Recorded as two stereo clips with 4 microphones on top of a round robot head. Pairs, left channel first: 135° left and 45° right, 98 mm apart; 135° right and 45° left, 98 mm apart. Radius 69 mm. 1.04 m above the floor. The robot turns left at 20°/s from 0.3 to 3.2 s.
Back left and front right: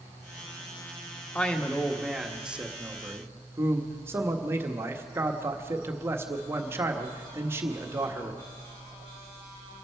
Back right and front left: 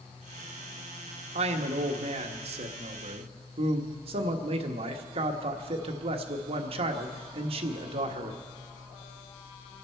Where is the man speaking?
60° left, 1.4 m; by 8.4 s 20° left, 1.4 m.